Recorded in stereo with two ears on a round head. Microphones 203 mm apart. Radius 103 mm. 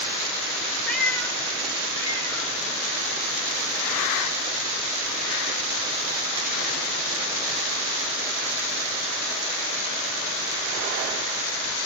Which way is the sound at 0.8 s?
5° left (ahead or behind).